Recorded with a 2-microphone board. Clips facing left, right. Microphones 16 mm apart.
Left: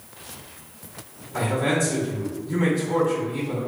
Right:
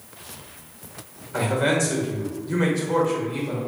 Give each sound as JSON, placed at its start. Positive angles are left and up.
{"t": 1.3, "sound": "a man speaking", "side_deg": -60, "distance_m": 1.9}